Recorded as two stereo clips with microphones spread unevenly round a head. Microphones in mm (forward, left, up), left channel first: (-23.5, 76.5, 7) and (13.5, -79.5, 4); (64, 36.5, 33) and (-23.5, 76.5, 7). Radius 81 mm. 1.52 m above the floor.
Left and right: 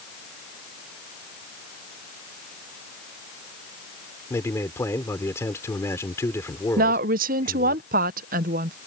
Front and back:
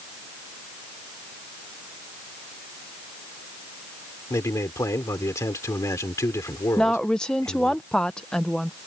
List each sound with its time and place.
4.3 s a man speaking: 30° left
6.8 s a woman speaking: 100° right